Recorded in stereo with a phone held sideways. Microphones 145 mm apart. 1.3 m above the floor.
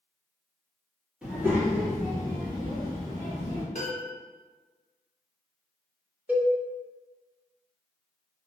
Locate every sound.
1.2 s a child speaking: 10° right (ahead or behind), 1.2 m; by 3.6 s 45° right (ahead or behind), 2 m
3.8 s a piano: 50° left (ahead or behind), 1.5 m
6.3 s a cowbell: 10° right (ahead or behind), 0.5 m